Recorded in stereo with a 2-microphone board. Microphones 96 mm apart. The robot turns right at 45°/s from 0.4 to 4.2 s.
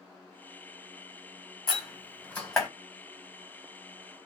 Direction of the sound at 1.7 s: 45° left (ahead or behind).